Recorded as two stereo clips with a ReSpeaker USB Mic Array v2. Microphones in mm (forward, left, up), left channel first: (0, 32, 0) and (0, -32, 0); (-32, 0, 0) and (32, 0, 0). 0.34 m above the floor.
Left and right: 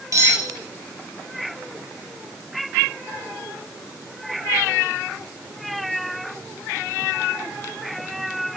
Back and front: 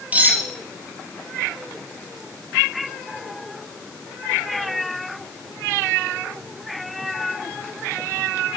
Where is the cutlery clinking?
65° right, 5 m.